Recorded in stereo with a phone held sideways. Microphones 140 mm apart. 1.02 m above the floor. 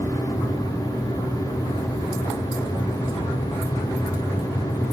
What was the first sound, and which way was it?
A fan, 25° left (ahead or behind).